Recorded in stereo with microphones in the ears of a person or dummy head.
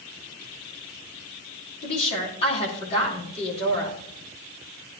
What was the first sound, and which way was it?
A woman speaking, 40° left (ahead or behind).